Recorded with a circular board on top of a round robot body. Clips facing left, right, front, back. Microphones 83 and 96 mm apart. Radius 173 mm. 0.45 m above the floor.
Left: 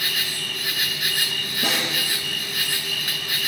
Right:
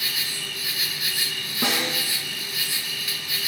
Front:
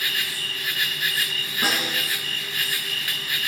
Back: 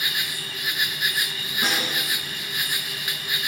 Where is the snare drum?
80° right, 6 m.